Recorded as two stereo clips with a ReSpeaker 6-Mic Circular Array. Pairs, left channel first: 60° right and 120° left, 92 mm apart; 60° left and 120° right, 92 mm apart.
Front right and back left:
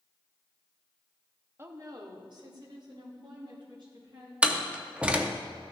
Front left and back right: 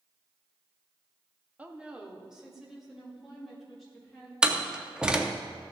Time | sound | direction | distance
1.6 | a woman speaking | 170° left | 0.7 m
4.4 | a door slam | 175° left | 0.6 m